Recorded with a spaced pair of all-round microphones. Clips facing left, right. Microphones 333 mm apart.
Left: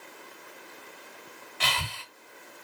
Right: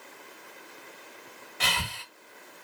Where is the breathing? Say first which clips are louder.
Right 1 dB; 55° right (ahead or behind), 1.7 m.